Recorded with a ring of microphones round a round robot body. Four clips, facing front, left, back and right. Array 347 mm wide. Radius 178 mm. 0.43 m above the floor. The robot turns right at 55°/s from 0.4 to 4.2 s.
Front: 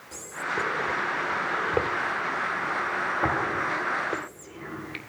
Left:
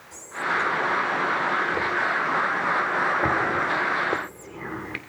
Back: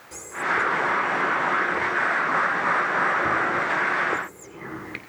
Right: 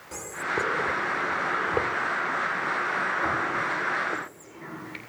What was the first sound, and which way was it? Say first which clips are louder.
Whispering: left 3 dB, back 5 dB; 105° right.